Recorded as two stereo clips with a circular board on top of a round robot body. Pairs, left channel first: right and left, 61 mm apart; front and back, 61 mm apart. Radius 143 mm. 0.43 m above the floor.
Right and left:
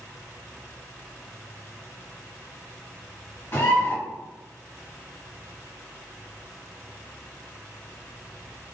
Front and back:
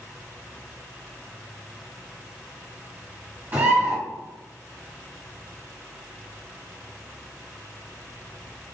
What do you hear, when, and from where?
3.5 s a bird: 120° right, 1.7 m